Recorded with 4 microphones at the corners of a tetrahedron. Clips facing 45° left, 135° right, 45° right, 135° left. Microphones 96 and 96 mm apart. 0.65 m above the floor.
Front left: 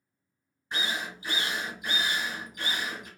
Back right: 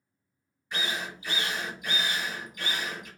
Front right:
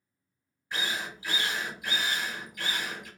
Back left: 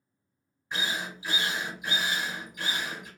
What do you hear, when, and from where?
0.7 s a drill: 80° left, 1.3 m